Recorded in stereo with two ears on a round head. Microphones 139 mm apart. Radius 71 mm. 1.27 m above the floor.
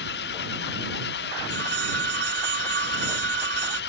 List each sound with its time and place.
0.0 s an engine running: 80° left
1.5 s a phone ringing: 90° right